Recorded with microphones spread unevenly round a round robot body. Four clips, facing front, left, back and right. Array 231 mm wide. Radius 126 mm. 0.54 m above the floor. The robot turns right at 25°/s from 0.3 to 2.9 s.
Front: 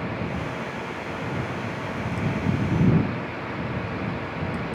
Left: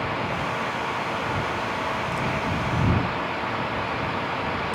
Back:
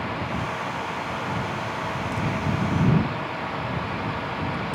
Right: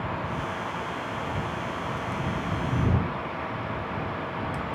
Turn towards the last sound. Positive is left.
No sound to turn to.